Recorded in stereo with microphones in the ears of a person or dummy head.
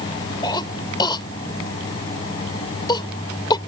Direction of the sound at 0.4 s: 25° left (ahead or behind).